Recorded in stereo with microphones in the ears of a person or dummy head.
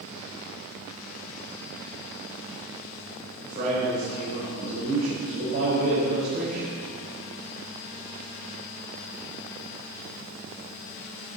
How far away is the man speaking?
About 6.5 m.